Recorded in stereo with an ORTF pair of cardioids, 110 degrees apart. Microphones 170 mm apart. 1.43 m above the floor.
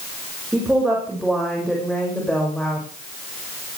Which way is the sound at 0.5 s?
5° right.